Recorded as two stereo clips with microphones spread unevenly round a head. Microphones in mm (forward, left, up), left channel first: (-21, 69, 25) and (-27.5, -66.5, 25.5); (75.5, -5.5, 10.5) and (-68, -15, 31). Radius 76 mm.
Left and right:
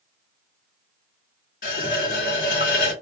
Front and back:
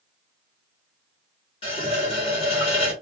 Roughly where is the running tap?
Ahead left.